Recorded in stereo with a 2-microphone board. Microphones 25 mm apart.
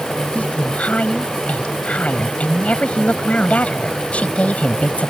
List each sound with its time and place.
0.3 s a woman speaking: 60° left (ahead or behind)